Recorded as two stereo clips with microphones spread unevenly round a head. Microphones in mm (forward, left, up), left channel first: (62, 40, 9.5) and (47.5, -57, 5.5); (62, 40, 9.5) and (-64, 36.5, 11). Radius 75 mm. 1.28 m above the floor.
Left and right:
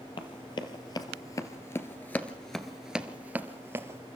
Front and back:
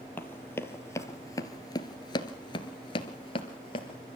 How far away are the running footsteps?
About 2.5 m.